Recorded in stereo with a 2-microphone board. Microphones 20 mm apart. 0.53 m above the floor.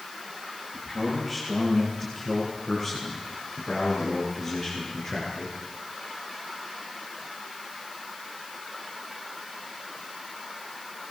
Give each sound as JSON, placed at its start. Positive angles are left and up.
{"t": 0.7, "sound": "a man speaking", "side_deg": 10, "distance_m": 9.5}